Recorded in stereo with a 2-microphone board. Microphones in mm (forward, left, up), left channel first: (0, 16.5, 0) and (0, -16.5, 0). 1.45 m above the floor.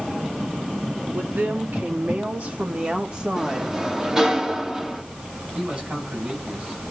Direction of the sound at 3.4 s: 15° right (ahead or behind).